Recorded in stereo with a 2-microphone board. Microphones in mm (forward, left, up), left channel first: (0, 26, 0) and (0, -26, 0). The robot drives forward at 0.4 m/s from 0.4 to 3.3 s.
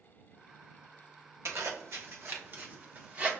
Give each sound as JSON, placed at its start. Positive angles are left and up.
{"t": 1.4, "sound": "a zipper", "side_deg": -65, "distance_m": 0.8}